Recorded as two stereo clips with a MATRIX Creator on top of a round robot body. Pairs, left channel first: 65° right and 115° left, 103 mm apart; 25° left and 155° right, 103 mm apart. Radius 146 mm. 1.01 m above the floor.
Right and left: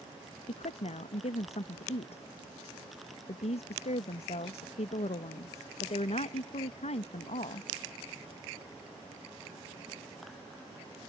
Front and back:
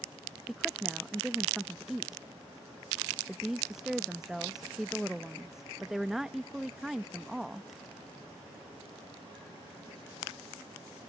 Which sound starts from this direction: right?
A woman speaking, at 0.5 s.